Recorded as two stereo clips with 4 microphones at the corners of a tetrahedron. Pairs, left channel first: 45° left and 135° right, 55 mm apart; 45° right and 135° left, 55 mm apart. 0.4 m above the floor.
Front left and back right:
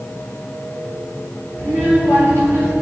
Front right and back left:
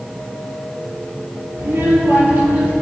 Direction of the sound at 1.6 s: Straight behind.